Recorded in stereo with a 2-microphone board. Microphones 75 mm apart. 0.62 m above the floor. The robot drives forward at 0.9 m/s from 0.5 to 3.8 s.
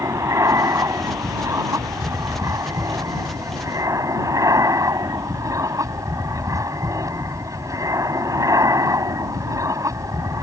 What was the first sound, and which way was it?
An aircraft, 45° right (ahead or behind).